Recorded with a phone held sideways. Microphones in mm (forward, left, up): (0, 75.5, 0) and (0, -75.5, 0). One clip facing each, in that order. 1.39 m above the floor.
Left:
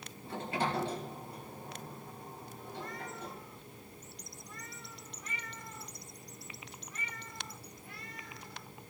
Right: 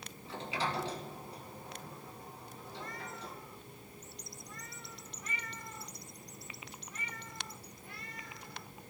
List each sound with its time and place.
0.2 s a sliding door: 50° left (ahead or behind), 2 m